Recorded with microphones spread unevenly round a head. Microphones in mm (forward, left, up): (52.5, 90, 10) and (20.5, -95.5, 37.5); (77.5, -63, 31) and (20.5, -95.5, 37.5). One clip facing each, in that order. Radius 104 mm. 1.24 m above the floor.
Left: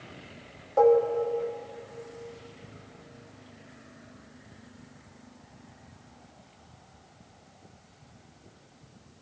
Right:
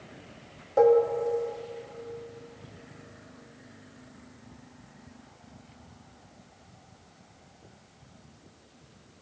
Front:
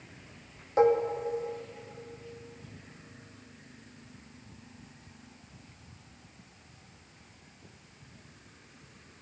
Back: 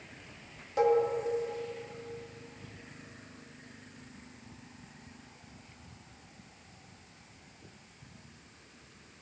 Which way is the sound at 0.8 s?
25° right.